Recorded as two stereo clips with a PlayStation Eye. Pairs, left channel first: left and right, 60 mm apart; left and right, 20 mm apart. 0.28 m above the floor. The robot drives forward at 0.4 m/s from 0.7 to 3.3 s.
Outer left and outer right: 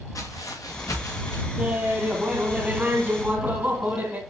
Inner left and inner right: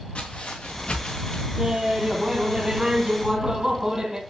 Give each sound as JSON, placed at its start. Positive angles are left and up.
{"t": 0.1, "sound": "footsteps", "side_deg": 65, "distance_m": 2.5}
{"t": 1.6, "sound": "laughter", "side_deg": -30, "distance_m": 2.5}